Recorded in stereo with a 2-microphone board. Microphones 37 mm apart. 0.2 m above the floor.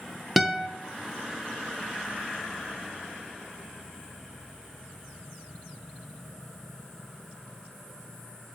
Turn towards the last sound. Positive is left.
turn(degrees=-5)  # may be behind; listen again after turning